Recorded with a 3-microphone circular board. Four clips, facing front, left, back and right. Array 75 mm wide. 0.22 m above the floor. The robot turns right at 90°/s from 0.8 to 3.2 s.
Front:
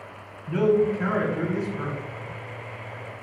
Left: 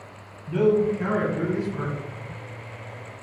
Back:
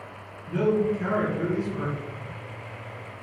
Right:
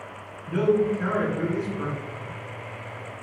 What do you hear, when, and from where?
0.5 s a man speaking: 10° left, 1.3 m; by 1.9 s 110° left, 1.3 m